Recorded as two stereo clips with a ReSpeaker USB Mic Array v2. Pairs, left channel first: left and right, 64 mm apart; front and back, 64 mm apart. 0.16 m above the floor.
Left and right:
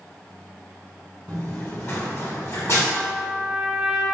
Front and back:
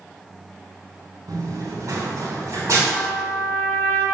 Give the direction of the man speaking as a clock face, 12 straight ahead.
No man speaking in this recording.